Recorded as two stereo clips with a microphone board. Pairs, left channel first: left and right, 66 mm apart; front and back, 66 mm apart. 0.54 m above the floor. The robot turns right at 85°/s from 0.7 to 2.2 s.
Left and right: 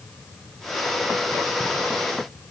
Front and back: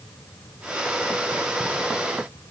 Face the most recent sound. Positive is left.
No sound to turn to.